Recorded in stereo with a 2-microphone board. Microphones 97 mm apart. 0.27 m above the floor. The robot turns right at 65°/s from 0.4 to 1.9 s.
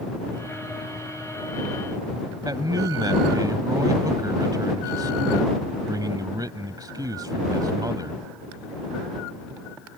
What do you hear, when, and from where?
2.5 s a man speaking: 45° right (ahead or behind)